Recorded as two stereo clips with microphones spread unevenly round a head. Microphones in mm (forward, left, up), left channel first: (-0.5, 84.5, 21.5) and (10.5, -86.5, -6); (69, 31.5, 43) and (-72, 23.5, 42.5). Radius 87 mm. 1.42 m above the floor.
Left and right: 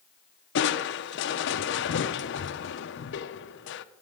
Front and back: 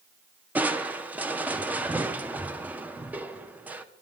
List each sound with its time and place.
0.6 s crushing: 105° left, 0.6 m